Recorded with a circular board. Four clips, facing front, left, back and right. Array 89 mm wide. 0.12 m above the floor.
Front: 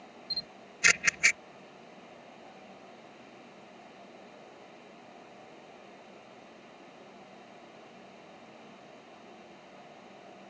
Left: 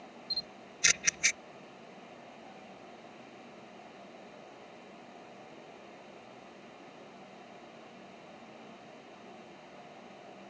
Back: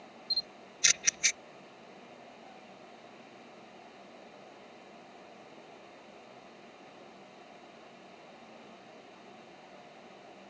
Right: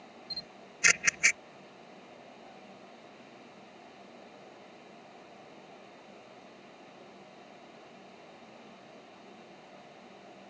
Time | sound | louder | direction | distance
0.3 | a camera shutter | left 1 dB, front 1 dB | 35° right | ?